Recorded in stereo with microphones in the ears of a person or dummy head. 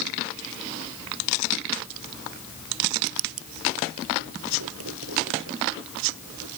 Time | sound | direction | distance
3.0 | writing | 85° right | ?